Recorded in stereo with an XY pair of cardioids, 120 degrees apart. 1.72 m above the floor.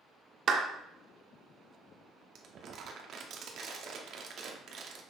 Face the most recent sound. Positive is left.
turn(degrees=-55)